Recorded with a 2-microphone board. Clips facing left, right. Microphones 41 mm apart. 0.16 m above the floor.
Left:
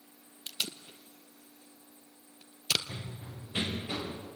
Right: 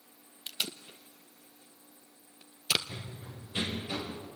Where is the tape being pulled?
10° right (ahead or behind), 1.0 m.